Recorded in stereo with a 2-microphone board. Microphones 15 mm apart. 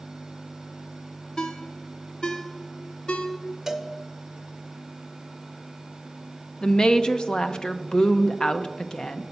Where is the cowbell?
15° right (ahead or behind), 0.9 m.